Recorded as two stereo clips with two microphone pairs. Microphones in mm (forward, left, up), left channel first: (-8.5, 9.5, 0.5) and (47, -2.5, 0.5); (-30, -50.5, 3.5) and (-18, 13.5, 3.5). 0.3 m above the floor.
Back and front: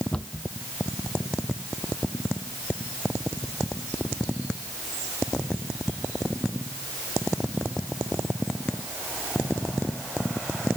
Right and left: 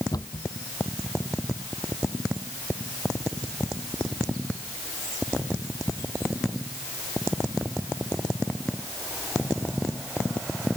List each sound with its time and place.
0.1 s a cupboard door: 120° right